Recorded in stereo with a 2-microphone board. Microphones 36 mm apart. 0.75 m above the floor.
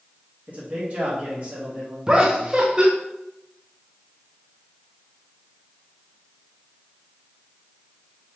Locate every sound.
0.5 s a man speaking: 45° right (ahead or behind), 1.6 m; by 2.0 s 30° right (ahead or behind), 1.3 m
2.1 s laughter: 25° right (ahead or behind), 0.6 m